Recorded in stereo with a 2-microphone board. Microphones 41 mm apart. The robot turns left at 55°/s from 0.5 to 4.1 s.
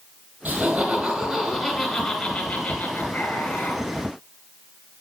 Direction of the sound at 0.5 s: 135° right.